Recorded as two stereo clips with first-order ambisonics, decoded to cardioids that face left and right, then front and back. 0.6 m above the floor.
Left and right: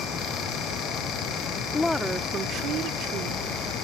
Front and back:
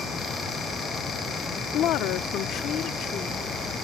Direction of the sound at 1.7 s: 25° left.